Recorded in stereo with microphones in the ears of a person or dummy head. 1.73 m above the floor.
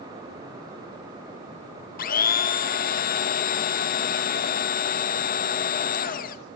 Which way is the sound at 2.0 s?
45° left (ahead or behind).